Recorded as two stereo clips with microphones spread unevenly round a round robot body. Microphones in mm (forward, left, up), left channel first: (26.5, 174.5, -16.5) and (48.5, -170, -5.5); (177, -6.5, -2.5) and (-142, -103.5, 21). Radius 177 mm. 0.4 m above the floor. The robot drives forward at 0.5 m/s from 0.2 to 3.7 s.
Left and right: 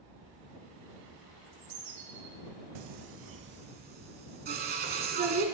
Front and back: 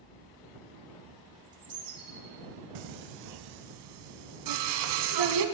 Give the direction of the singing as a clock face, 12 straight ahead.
4 o'clock.